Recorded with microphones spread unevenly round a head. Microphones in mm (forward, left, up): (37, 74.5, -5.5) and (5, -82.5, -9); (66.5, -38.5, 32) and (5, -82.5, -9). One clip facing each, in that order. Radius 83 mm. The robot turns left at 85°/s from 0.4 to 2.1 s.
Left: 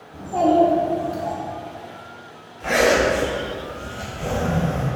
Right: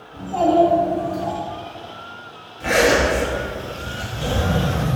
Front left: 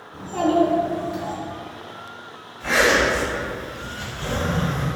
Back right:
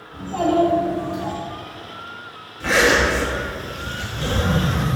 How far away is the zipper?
About 0.5 m.